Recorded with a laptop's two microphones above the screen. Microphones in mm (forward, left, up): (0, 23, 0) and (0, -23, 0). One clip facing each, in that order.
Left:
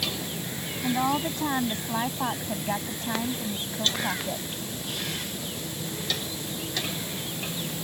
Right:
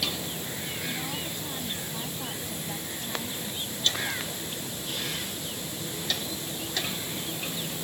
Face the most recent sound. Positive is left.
turn(degrees=45)  # may be behind; listen again after turning